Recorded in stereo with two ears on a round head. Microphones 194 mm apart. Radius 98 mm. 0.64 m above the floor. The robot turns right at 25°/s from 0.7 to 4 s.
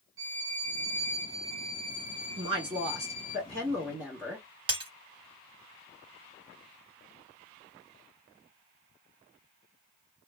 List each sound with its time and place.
0.2 s a violin: 70° right, 1.1 m; by 3.4 s 5° right, 1.1 m
2.4 s a woman speaking: 25° right (ahead or behind), 1.2 m; by 4.5 s 10° right (ahead or behind), 1.2 m
4.7 s breaking glass: 25° right (ahead or behind), 0.8 m